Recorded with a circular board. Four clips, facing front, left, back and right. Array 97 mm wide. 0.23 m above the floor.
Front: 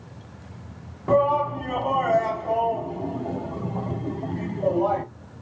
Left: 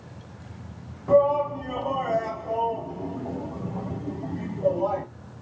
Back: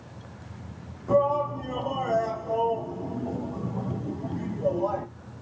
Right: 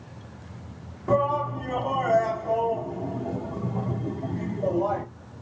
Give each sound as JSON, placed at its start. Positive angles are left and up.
{"t": 1.1, "sound": "a shout", "azimuth_deg": -10, "distance_m": 1.3}